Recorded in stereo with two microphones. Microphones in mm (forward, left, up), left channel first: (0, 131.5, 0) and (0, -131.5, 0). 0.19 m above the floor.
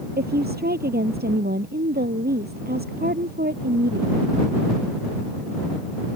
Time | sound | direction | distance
0.2 | a woman speaking | 35° right (ahead or behind) | ?